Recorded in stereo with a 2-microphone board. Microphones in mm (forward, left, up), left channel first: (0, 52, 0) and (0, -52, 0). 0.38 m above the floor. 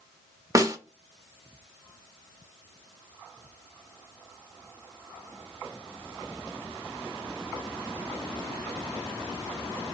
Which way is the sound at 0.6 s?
30° right (ahead or behind).